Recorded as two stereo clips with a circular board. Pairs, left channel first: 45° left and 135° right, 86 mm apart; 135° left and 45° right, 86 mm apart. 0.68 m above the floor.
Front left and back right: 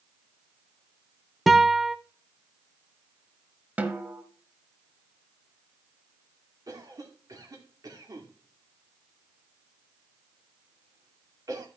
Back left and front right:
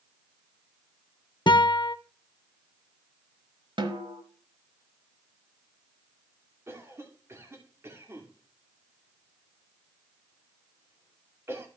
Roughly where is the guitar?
Behind left.